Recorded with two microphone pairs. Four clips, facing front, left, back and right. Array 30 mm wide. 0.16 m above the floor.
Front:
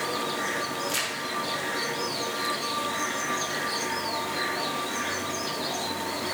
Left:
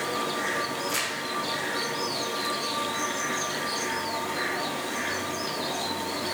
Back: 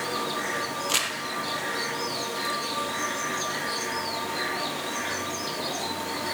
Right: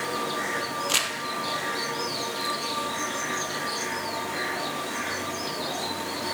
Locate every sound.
0.9 s crumpling: 115° right, 2 m